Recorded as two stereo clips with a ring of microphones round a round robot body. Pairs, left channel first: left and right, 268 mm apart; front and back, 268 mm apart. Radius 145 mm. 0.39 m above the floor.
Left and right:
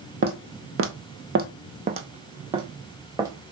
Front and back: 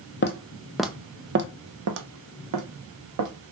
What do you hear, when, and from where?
0.2 s footsteps: 40° right, 0.6 m; by 3.3 s 170° right, 1.6 m